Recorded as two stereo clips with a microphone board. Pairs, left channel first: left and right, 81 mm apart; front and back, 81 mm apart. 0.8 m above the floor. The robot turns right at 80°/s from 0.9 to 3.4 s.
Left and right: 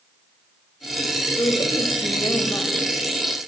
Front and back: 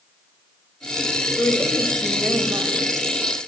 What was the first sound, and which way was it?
A woman speaking, 55° left.